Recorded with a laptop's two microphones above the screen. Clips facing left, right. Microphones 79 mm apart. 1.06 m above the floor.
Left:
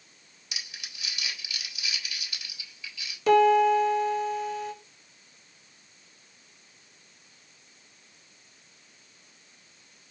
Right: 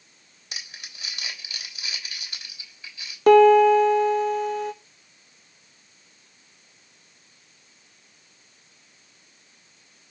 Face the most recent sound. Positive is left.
turn(degrees=-50)  # may be behind; listen again after turning